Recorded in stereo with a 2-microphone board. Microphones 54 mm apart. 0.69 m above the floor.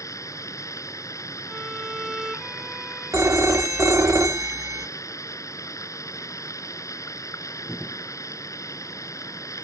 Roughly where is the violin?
Centre.